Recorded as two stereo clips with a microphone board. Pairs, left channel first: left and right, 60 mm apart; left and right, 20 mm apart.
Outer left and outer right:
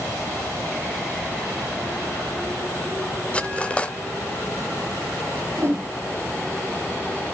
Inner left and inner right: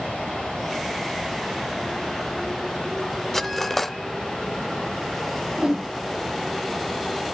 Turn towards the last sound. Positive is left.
turn(degrees=-45)  # may be behind; listen again after turning